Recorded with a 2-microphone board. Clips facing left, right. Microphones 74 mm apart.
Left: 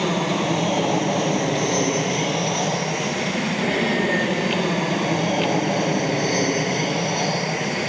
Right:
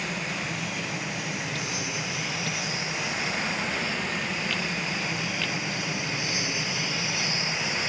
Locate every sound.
0.0 s an aircraft: 70° left (ahead or behind); by 7.9 s 60° left (ahead or behind)